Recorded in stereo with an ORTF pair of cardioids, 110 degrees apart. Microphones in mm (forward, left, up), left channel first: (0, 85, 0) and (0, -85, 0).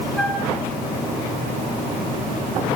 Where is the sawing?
No sawing in this recording.